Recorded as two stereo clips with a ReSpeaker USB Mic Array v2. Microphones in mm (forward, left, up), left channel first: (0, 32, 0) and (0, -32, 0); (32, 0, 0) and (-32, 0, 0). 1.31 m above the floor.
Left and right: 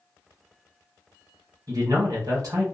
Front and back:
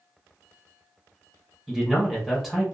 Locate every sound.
1.7 s a man speaking: 95° right, 1.4 m